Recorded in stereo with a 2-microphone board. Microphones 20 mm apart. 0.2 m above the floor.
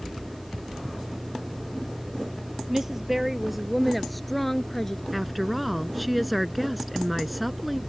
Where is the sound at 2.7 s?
15° right (ahead or behind); by 5.0 s 25° left (ahead or behind).